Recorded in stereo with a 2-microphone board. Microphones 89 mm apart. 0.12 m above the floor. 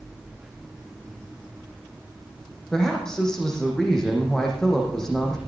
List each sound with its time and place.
2.7 s a woman speaking: 5° left (ahead or behind), 5.5 m